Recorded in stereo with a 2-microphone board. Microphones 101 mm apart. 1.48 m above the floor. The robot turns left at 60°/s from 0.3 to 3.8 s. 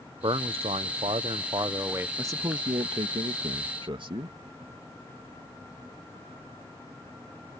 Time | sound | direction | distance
0.2 | a man speaking | 55° right | ?
2.2 | a man speaking | 25° right | ?